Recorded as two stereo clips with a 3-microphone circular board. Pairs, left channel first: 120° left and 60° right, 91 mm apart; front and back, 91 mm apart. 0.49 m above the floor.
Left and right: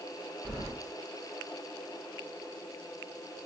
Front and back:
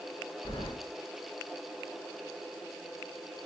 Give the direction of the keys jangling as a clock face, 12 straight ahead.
12 o'clock.